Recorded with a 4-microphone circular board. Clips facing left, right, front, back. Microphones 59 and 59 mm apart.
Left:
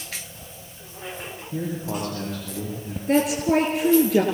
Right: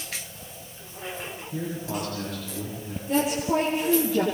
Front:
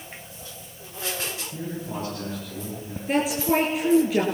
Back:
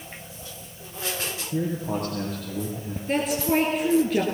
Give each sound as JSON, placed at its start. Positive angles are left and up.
{"t": 1.5, "sound": "a man speaking", "azimuth_deg": 150, "distance_m": 9.5}
{"t": 3.1, "sound": "a woman speaking", "azimuth_deg": 85, "distance_m": 4.5}